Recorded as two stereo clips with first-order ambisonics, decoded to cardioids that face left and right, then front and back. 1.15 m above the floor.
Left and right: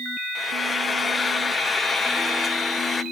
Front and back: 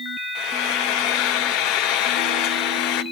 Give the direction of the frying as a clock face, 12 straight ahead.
12 o'clock.